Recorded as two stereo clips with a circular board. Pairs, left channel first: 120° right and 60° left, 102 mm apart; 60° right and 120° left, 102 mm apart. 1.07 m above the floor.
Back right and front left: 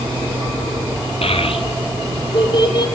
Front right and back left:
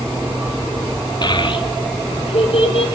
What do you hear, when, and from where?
1.2 s a child speaking: 105° right, 1.4 m; by 2.9 s 75° right, 2.5 m